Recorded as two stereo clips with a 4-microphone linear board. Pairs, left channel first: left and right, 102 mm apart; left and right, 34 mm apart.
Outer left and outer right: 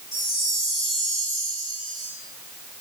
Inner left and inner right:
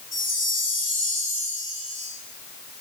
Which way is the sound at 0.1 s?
Centre (ahead or behind).